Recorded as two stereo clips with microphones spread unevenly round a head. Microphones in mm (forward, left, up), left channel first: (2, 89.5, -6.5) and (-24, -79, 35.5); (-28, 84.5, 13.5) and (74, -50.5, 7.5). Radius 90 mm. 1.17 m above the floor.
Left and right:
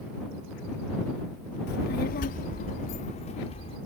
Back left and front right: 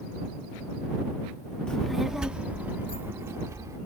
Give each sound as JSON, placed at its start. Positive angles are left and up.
{"t": 1.7, "sound": "a child speaking", "azimuth_deg": 45}